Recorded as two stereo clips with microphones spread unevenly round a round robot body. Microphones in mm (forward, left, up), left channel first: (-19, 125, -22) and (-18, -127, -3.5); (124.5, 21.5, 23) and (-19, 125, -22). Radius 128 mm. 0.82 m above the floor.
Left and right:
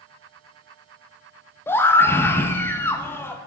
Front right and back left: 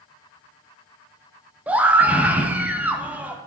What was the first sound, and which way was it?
A scream, 145° left.